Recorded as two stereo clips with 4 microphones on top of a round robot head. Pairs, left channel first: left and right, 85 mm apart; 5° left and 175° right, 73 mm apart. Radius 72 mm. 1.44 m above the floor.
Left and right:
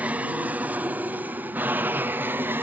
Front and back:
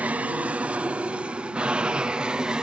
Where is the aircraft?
135° right; by 2.6 s 110° right.